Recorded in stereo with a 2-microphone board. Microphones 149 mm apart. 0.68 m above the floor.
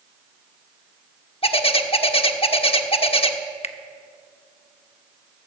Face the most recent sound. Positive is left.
turn(degrees=45)  # may be behind; listen again after turning